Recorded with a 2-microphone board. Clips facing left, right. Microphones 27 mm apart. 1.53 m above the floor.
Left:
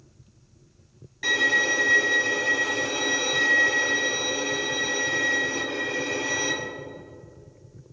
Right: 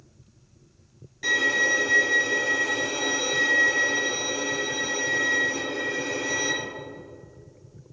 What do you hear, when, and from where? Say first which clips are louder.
1.2 s a violin: left 1 dB; 10° left (ahead or behind), 1.7 m